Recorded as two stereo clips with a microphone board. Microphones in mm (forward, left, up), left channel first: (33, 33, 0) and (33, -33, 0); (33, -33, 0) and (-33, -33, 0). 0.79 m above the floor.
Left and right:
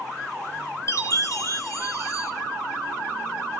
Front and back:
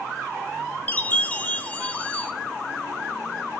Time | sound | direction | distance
0.9 | a chime | 65° left | 0.6 m